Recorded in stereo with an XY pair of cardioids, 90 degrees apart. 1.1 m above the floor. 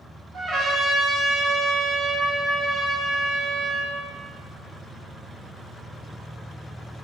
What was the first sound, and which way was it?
A trumpet, 55° right.